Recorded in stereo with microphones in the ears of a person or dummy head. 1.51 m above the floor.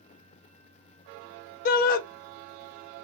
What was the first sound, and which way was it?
A shout, 50° left (ahead or behind).